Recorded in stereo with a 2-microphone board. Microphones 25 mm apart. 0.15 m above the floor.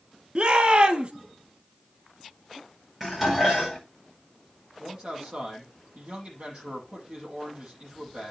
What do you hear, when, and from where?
0.3 s a shout: 50° right (ahead or behind), 2.5 m
3.0 s dishes clattering: 15° right (ahead or behind), 8.5 m
4.8 s a man speaking: 55° right (ahead or behind), 6.5 m